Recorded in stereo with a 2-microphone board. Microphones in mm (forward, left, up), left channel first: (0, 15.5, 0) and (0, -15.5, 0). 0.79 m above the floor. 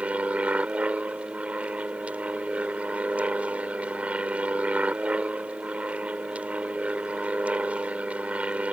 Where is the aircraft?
45° right (ahead or behind).